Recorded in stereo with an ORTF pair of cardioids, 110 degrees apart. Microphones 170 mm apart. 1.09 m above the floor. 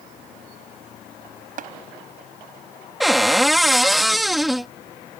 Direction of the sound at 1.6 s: 50° right.